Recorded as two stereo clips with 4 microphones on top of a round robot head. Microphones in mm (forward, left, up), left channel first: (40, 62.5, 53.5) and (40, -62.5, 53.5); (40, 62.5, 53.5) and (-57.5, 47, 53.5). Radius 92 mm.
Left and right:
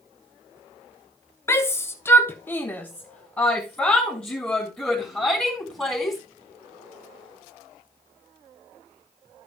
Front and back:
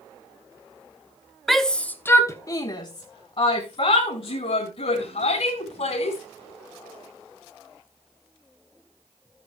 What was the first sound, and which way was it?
A shout, 100° left.